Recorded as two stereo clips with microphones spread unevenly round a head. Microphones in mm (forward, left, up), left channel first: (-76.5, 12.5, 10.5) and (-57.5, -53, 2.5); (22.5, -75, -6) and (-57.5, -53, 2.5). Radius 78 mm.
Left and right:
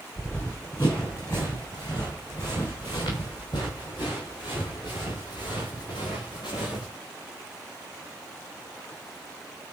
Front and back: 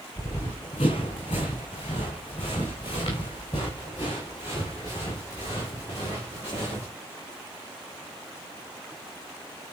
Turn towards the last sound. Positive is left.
turn(degrees=65)